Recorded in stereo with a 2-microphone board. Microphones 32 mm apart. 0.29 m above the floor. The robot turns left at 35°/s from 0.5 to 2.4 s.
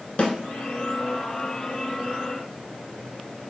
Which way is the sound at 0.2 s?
45° left (ahead or behind).